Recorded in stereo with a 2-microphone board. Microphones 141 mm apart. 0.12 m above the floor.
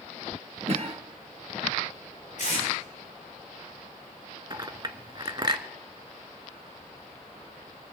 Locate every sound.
0.7 s a cough: 50° right (ahead or behind), 2.5 m
2.4 s tape being pulled: 80° left, 7.5 m
4.5 s a clink: 30° right (ahead or behind), 0.8 m